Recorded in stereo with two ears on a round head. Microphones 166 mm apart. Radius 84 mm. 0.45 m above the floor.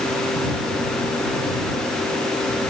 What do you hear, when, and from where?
Only background noise.